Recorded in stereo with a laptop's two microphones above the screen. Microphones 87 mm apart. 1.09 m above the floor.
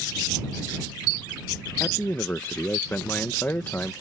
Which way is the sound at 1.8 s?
25° left (ahead or behind).